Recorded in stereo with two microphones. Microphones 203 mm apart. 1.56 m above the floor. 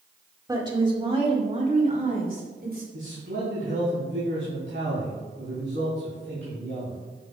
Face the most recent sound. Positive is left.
turn(degrees=-70)  # may be behind; listen again after turning